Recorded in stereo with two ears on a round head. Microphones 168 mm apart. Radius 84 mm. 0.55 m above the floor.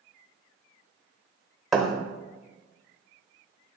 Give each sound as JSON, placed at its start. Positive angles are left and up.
{"t": 1.7, "sound": "a thud", "side_deg": 0, "distance_m": 0.9}